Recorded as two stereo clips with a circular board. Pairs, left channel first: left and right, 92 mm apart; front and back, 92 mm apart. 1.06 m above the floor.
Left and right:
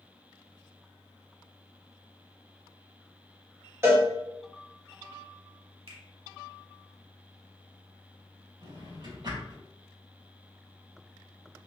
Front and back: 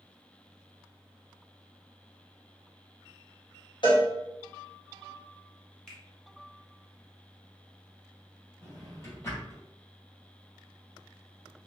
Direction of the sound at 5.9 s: 80° right.